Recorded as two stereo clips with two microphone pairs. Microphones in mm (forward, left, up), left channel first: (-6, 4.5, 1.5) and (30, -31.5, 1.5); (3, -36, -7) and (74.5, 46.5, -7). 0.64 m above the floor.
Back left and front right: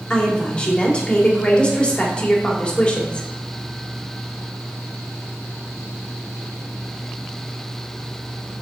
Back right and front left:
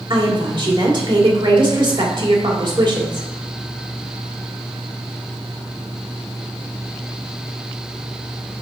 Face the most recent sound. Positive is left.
turn(degrees=70)